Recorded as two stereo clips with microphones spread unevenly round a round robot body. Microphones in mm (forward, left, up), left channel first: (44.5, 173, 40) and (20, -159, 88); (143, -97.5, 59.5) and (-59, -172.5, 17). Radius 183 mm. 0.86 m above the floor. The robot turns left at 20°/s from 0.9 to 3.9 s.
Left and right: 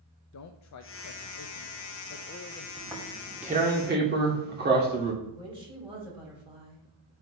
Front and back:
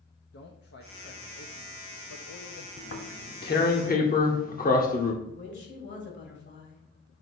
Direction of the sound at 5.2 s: 15° right.